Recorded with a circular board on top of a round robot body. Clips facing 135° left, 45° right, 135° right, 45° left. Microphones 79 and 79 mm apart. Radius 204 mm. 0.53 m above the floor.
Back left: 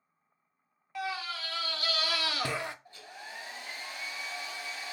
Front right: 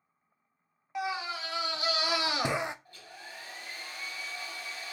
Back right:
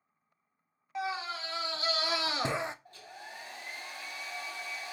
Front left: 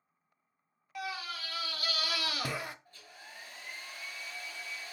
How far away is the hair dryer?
About 1.4 m.